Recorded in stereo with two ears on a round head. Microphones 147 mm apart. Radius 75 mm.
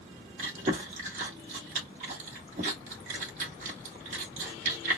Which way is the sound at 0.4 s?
50° right (ahead or behind).